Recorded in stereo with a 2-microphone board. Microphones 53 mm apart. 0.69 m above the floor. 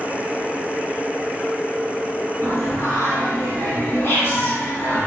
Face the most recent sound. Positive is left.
turn(degrees=50)  # may be behind; listen again after turning